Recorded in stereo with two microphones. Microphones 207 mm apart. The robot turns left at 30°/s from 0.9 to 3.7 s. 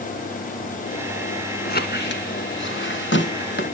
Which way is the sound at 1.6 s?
50° left (ahead or behind).